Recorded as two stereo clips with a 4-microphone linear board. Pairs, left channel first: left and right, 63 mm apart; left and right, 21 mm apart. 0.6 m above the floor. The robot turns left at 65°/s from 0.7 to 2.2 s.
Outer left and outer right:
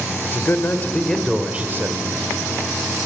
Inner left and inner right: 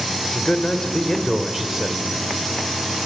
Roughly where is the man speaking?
Ahead left.